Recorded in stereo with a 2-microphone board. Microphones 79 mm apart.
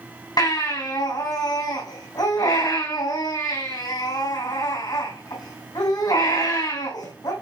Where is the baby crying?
55° left (ahead or behind), 4 m.